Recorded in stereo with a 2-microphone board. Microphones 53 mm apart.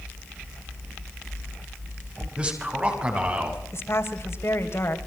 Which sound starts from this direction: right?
A man speaking, at 2.4 s.